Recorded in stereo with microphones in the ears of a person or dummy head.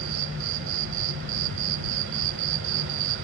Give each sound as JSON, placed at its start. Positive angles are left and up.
{"t": 0.0, "sound": "an insect", "side_deg": -70}